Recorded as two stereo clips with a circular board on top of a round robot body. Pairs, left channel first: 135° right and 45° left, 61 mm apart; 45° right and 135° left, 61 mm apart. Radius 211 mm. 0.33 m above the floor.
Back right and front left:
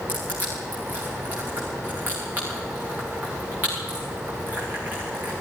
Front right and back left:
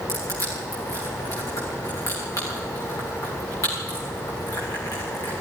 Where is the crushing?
20° right, 10 m.